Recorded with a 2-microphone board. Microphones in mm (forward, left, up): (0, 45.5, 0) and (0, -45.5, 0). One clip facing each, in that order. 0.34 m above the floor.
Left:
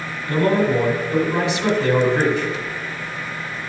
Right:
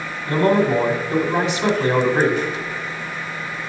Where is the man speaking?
25° right (ahead or behind), 1.6 m.